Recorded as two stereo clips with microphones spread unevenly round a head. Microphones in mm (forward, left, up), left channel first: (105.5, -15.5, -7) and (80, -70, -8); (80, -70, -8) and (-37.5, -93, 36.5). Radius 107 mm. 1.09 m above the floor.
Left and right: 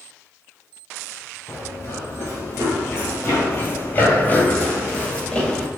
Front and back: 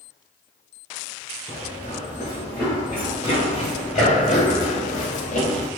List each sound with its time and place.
1.5 s running footsteps: 110° left, 1.9 m; by 5.7 s 5° right, 1.6 m